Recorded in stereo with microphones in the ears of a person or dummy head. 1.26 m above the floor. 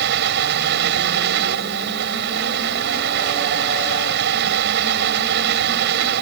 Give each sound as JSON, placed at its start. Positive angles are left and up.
{"t": 0.0, "sound": "a fan", "side_deg": -55}